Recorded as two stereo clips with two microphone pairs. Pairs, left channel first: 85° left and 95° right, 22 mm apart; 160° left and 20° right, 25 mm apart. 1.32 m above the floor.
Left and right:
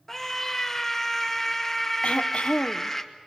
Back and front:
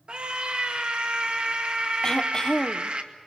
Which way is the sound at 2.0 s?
105° left.